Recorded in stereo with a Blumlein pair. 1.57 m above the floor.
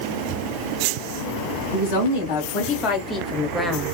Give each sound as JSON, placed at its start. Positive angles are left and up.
{"t": 1.7, "sound": "a woman speaking", "azimuth_deg": 55, "distance_m": 1.6}